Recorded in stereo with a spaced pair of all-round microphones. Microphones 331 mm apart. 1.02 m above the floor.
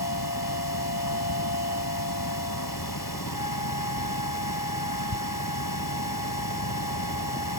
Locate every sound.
0.0 s a machine running: 85° left